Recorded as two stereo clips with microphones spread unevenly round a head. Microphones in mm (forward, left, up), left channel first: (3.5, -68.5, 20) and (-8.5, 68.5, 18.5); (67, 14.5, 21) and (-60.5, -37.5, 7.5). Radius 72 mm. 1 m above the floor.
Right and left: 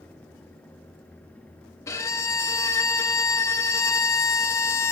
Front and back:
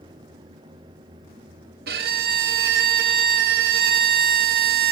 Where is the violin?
150° right, 0.5 m.